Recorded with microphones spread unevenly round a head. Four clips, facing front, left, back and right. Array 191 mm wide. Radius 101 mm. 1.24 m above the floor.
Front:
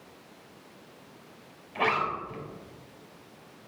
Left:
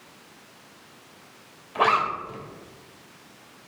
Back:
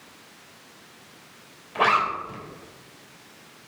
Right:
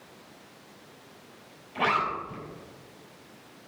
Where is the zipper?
130° left, 3.5 m.